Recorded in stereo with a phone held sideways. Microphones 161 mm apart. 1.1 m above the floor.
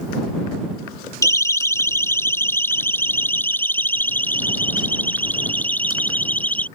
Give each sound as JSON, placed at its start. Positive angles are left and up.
{"t": 1.2, "sound": "a siren", "side_deg": 20}